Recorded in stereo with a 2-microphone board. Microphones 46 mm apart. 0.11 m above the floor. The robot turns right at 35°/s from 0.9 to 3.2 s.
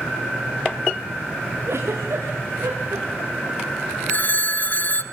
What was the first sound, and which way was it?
A giggle, 60° right (ahead or behind).